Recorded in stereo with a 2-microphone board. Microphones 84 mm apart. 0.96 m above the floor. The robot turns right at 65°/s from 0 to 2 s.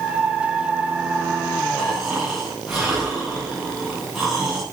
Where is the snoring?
10° left (ahead or behind), 9.5 m; by 4.6 s 5° right (ahead or behind), 9.5 m.